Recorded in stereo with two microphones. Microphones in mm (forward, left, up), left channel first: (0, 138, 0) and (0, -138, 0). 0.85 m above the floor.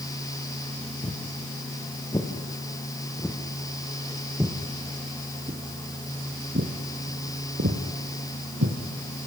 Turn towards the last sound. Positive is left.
turn(degrees=-70)  # may be behind; listen again after turning